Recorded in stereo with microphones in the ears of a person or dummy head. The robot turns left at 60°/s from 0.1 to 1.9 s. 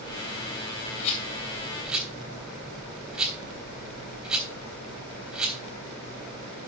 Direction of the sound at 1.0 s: 45° left (ahead or behind).